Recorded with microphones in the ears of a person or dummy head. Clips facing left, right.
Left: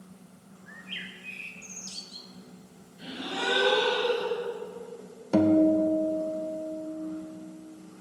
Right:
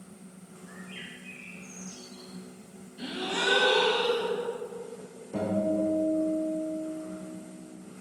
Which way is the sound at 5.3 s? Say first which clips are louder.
Left 7 dB; 80° left.